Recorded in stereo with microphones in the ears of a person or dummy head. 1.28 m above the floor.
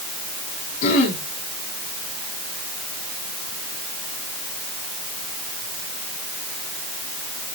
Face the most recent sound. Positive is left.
turn(degrees=45)  # may be behind; listen again after turning